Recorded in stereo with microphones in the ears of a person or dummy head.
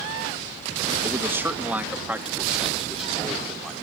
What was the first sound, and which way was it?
A man speaking, 20° right (ahead or behind).